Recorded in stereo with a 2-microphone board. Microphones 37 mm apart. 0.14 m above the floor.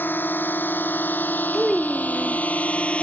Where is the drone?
65° left (ahead or behind); by 3.0 s 30° left (ahead or behind).